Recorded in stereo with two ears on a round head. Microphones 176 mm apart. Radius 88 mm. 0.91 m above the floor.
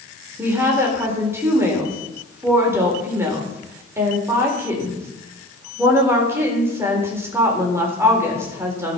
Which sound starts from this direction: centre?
A woman speaking, at 0.4 s.